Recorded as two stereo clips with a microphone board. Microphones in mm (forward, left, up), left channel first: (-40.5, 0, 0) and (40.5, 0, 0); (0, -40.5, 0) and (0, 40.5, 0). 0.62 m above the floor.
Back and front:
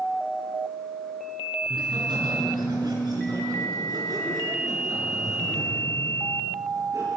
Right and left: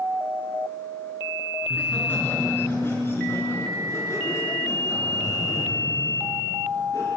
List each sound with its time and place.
1.6 s laughter: 25° right, 8.5 m; by 7.1 s 50° right, 12 m